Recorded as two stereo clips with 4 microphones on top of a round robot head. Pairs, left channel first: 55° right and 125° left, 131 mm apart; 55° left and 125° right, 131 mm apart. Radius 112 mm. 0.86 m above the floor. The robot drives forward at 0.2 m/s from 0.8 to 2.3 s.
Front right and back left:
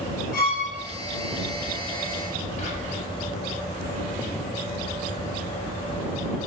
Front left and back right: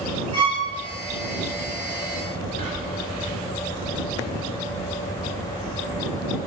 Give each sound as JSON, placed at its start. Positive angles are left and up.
{"t": 0.3, "sound": "a violin", "azimuth_deg": -65, "distance_m": 1.1}
{"t": 2.6, "sound": "whispering", "azimuth_deg": -85, "distance_m": 1.4}